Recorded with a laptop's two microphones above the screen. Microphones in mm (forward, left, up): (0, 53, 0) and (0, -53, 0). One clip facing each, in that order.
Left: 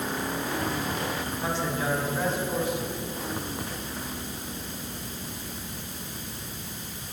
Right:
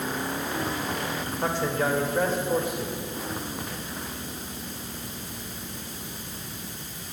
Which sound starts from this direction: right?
A man speaking, at 1.4 s.